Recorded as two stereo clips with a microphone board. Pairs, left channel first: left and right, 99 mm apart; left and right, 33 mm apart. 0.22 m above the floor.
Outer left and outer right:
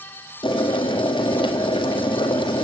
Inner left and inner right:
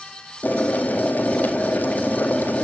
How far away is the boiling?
About 1.9 m.